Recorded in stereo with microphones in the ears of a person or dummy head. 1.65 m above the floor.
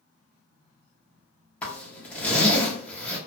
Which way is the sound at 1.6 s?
5° left (ahead or behind).